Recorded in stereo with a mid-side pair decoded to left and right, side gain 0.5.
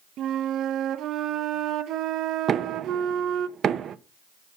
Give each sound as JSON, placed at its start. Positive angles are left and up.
{"t": 0.2, "sound": "a flute", "azimuth_deg": -65, "distance_m": 0.8}
{"t": 2.5, "sound": "knocking", "azimuth_deg": -50, "distance_m": 1.0}